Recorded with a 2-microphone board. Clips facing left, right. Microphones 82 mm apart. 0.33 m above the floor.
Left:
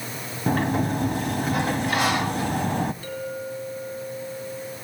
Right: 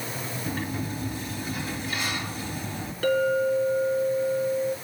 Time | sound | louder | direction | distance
0.5 | a sliding door | left 11 dB | 65° left (ahead or behind) | 0.8 m
3.0 | a clink | right 9 dB | 75° right (ahead or behind) | 2.5 m